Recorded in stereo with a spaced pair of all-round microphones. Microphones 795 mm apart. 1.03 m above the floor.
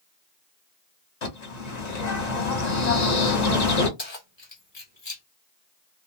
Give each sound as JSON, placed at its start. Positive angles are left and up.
{"t": 1.2, "sound": "a bird", "side_deg": 55, "distance_m": 1.0}
{"t": 4.0, "sound": "keys jangling", "side_deg": 35, "distance_m": 0.9}